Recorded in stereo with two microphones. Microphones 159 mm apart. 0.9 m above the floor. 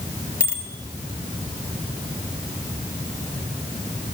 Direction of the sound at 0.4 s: 65° right (ahead or behind).